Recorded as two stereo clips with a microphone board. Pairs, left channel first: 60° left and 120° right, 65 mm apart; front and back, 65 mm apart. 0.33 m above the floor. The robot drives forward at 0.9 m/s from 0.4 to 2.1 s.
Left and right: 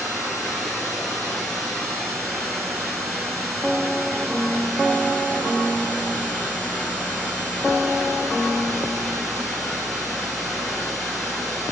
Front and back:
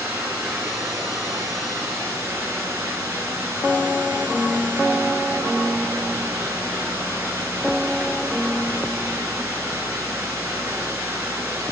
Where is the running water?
115° left, 4.5 m; by 11.7 s 130° left, 5.5 m.